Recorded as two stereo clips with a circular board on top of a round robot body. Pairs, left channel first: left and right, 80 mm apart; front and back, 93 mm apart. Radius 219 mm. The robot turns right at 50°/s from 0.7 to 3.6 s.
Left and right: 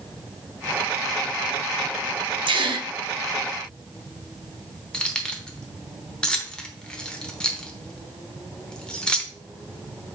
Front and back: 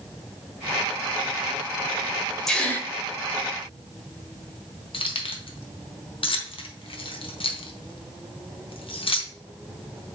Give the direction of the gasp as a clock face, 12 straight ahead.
3 o'clock.